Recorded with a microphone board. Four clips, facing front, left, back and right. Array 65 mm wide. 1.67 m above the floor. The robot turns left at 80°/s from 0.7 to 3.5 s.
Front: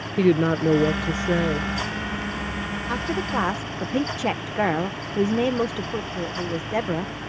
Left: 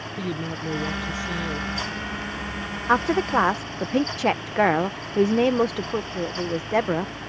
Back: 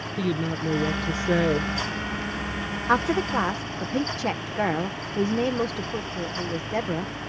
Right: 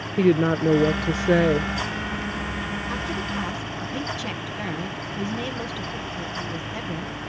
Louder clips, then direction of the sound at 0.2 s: Right 12 dB, front 9 dB; 45° right.